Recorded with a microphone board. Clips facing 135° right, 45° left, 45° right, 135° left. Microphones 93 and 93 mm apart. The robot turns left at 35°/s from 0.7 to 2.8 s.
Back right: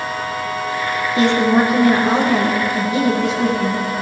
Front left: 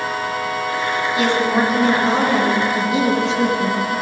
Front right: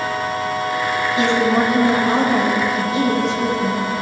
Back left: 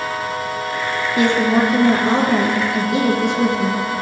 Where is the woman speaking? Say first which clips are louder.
Back right 4 dB, back left 2 dB; 170° left, 3.5 m; by 3.8 s 110° left, 3.5 m.